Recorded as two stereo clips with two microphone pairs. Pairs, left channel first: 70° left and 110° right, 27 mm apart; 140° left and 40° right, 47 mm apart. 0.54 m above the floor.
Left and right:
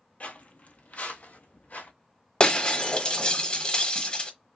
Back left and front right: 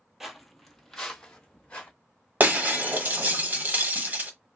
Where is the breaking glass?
10° left, 1.0 m.